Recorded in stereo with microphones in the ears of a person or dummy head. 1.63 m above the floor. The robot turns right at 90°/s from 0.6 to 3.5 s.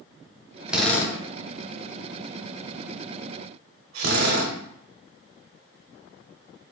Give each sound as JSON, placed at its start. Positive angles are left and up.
{"t": 0.7, "sound": "a drill", "side_deg": -10, "distance_m": 0.6}